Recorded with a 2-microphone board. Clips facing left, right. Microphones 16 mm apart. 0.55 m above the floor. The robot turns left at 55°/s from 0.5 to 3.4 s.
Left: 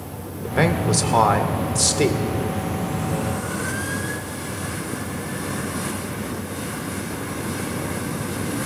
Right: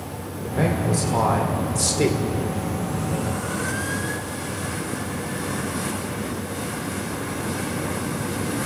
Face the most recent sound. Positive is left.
turn(degrees=-55)